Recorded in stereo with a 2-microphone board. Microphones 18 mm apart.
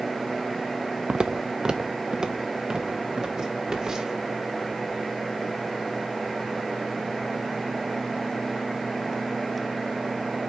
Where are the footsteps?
60° right (ahead or behind), 0.5 m; by 4.2 s 40° right (ahead or behind), 3 m.